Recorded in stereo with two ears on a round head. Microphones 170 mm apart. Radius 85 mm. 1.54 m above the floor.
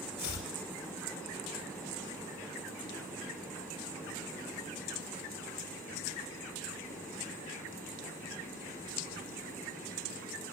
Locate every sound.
0.2 s chopping: 55° left (ahead or behind), 8 m